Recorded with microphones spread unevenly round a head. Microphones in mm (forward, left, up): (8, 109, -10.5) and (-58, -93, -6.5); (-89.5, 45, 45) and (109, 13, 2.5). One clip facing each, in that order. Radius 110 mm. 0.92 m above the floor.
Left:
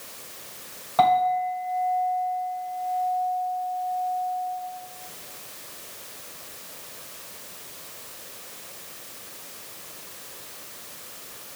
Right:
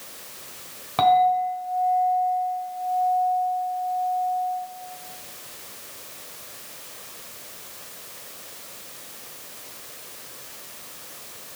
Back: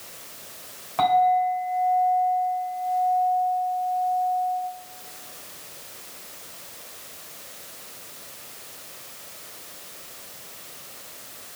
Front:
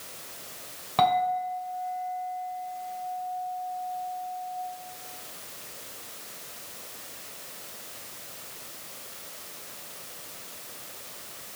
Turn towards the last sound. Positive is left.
turn(degrees=-55)